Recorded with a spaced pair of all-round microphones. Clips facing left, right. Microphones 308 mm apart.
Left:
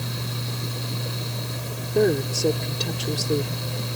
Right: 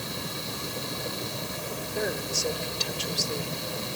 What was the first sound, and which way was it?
A fan, 80° left.